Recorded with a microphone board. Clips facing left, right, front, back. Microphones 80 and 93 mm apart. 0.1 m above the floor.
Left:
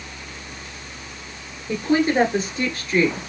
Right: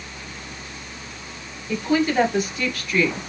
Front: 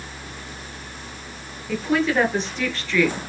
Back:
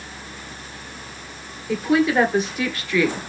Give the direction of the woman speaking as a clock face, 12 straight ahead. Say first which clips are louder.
Left 1 dB, back 3 dB; 8 o'clock.